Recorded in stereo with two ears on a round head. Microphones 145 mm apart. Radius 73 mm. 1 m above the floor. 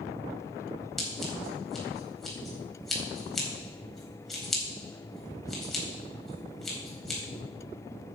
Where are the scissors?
5° left (ahead or behind), 4 m.